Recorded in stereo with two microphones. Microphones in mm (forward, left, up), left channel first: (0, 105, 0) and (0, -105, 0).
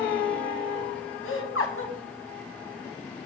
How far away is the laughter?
About 1.8 m.